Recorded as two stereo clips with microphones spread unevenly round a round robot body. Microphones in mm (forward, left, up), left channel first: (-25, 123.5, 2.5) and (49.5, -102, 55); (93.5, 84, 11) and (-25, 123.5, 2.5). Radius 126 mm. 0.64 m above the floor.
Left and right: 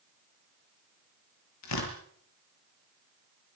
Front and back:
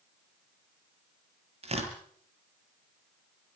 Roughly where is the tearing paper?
Behind left.